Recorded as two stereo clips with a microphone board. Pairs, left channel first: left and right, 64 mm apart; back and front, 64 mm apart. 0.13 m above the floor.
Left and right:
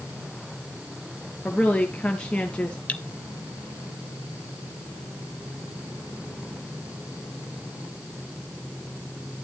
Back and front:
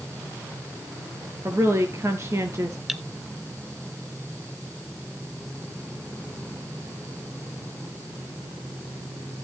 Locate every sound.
1.4 s a woman speaking: 20° left, 2.5 m
2.9 s cutlery clinking: 75° left, 0.6 m